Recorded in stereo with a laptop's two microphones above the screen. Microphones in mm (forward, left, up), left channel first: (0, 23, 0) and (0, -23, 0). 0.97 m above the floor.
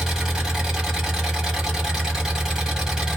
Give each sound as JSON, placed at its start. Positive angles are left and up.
{"t": 0.0, "sound": "an engine running", "side_deg": -15, "distance_m": 1.2}